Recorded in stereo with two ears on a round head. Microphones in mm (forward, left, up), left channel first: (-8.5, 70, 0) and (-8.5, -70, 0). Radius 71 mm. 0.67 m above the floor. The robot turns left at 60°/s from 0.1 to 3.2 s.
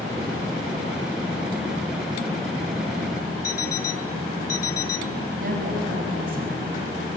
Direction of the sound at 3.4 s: 20° left (ahead or behind).